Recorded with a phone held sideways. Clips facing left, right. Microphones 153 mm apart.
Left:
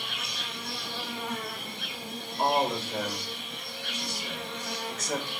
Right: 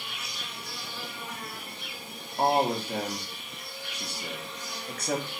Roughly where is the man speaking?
Right.